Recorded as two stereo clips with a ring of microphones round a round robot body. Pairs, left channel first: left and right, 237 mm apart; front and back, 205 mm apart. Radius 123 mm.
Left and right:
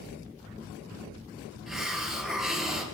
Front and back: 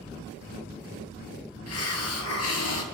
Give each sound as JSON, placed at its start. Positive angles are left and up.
{"t": 1.7, "sound": "a hiss", "azimuth_deg": 0, "distance_m": 2.0}